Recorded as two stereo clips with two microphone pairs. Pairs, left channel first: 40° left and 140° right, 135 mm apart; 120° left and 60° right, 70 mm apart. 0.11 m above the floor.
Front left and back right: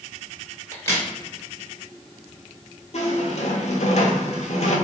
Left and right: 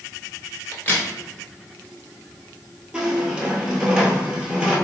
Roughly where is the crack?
Left.